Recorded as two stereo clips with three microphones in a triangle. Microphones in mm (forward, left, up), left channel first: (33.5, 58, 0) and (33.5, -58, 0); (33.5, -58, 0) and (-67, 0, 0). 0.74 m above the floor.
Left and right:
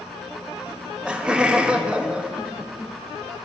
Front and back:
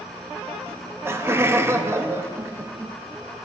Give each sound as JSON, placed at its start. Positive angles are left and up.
{"t": 0.7, "sound": "laughter", "azimuth_deg": -160, "distance_m": 0.5}